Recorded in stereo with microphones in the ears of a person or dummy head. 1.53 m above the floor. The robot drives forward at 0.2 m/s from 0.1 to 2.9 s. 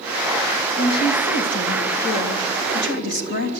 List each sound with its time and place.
0.8 s a woman speaking: 65° left (ahead or behind), 2.5 m; by 3.6 s 55° left (ahead or behind), 3 m